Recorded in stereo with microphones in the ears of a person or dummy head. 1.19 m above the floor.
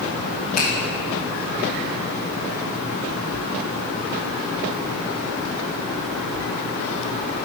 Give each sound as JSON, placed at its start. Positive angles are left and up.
{"t": 0.6, "sound": "a finger snap", "side_deg": 40, "distance_m": 1.4}